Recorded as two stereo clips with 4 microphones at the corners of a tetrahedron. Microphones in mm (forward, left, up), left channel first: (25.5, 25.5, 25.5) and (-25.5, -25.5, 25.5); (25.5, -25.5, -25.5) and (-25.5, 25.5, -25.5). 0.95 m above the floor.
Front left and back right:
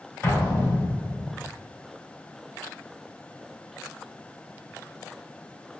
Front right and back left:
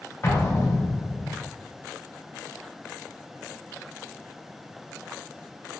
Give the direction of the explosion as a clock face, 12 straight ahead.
12 o'clock.